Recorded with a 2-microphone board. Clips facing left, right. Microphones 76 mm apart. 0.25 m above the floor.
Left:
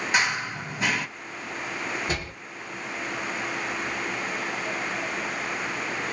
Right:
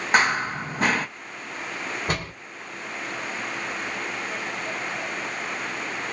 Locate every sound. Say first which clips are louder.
0.1 s running footsteps: right 6 dB; 40° right (ahead or behind), 0.5 m
2.1 s a door slam: right 2 dB; 50° right (ahead or behind), 1.8 m